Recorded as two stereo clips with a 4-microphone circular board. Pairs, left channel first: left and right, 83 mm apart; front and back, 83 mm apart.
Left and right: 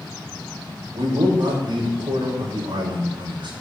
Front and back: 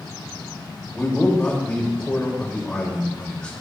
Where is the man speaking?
75° right, 5 m.